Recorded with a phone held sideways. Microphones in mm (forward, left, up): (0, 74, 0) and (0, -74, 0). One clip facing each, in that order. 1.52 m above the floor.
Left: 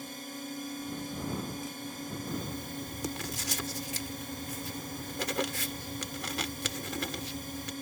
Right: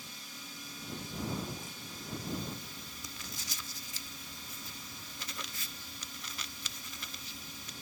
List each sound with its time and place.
0.0 s a drone: 50° left (ahead or behind)
2.3 s writing: 75° left (ahead or behind)